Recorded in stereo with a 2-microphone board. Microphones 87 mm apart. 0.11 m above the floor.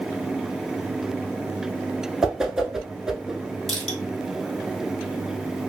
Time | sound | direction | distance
2.2 | a whoosh | 5° right (ahead or behind) | 0.6 m
3.7 | crushing | 5° left (ahead or behind) | 3 m